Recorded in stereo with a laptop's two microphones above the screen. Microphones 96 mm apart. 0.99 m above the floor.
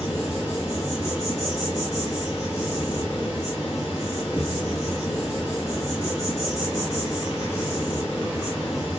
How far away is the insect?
About 7.5 m.